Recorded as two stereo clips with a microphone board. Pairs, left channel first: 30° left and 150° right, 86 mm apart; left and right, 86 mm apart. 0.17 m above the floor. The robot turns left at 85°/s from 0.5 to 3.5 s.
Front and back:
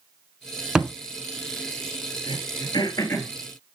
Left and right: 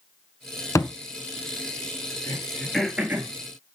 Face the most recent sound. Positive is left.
turn(degrees=-60)